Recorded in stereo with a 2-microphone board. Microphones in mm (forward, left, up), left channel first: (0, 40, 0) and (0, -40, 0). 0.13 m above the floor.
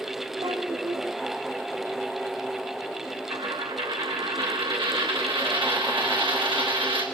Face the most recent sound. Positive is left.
turn(degrees=-85)